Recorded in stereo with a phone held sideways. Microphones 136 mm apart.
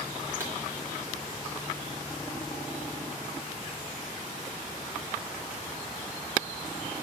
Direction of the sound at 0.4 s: 15° right (ahead or behind).